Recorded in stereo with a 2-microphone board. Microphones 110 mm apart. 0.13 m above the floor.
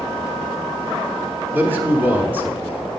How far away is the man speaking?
About 1.0 m.